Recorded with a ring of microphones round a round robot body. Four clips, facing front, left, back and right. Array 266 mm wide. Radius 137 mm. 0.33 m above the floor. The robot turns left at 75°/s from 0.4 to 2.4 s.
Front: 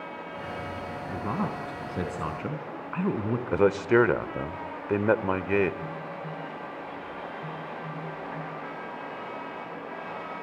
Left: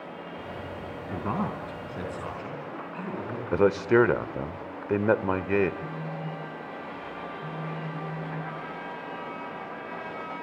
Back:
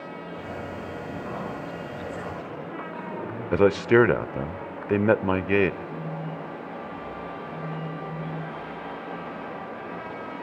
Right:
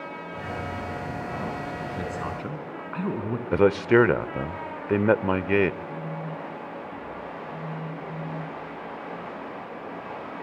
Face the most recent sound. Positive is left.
turn(degrees=50)